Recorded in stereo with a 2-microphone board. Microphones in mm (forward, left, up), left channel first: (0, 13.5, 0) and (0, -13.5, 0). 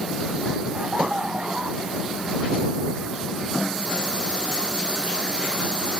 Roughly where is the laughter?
Right.